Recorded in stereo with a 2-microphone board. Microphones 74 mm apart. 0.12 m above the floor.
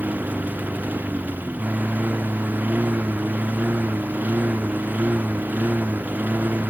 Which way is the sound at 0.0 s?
20° right (ahead or behind).